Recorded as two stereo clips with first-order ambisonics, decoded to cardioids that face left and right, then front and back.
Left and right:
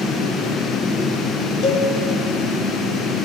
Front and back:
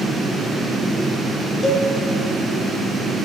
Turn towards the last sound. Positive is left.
turn(degrees=70)